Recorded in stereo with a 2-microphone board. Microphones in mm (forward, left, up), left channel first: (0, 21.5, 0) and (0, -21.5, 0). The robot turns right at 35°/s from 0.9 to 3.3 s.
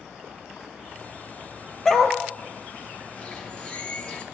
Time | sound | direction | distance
1.9 | a dog barking | 15° left (ahead or behind) | 1.1 m
3.2 | a bird | 35° left (ahead or behind) | 2.5 m